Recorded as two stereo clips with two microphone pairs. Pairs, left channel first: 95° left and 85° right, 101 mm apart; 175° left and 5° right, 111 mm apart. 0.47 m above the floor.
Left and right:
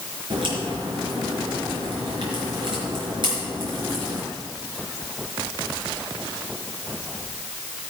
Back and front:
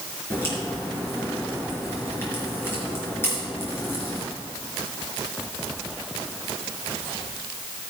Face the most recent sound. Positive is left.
turn(degrees=-115)